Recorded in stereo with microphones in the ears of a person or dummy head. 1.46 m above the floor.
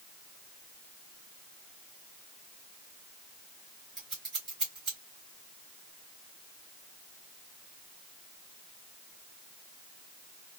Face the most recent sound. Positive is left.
turn(degrees=0)  # may be behind; listen again after turning